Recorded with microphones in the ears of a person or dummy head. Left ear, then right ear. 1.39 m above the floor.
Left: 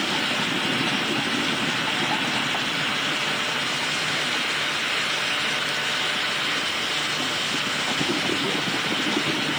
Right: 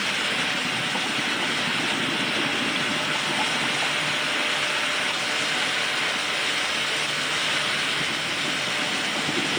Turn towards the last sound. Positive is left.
No sound to turn to.